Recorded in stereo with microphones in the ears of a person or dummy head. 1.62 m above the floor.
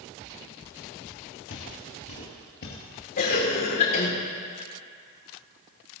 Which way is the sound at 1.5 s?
60° left (ahead or behind).